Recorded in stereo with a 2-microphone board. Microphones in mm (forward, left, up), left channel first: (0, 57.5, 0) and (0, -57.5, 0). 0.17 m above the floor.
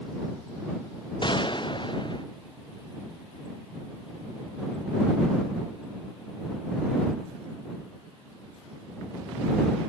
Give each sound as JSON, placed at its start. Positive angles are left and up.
{"t": 1.2, "sound": "a gunshot", "side_deg": 45}